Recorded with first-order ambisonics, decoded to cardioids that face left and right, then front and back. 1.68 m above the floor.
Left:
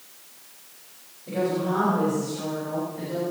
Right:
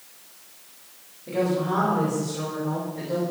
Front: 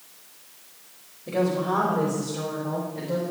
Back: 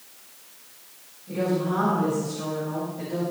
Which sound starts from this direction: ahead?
A woman speaking, at 1.3 s.